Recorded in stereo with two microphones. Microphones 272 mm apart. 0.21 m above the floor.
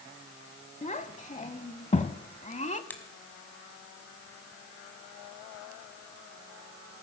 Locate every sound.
0.8 s a child speaking: 30° left (ahead or behind), 0.7 m
2.9 s a finger snap: 5° left (ahead or behind), 1.6 m